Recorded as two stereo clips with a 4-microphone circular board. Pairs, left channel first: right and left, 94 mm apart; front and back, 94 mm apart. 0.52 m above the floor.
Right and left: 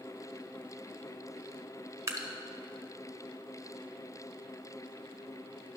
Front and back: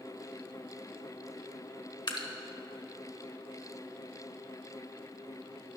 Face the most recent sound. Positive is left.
turn(degrees=35)